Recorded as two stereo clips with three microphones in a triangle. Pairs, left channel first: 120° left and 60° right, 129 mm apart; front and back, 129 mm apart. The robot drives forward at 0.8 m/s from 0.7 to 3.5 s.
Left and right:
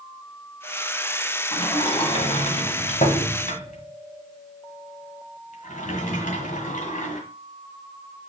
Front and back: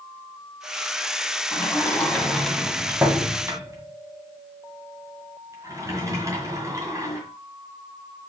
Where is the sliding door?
65° left, 1.9 m; by 7.2 s 115° left, 1.8 m.